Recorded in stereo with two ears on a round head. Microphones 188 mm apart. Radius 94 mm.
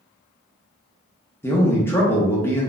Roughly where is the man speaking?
Centre.